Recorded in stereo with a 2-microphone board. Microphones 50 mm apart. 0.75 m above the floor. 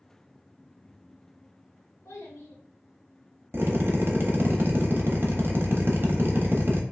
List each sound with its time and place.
2.0 s a child speaking: 80° left, 1.3 m
3.5 s a drill: 50° right (ahead or behind), 0.6 m